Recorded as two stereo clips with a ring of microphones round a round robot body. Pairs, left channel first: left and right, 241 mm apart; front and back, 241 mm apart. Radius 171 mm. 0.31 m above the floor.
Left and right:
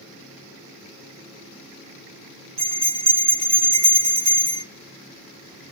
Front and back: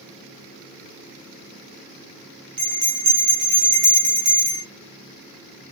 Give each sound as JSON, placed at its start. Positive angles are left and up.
{"t": 2.6, "sound": "a bell", "azimuth_deg": -145, "distance_m": 1.8}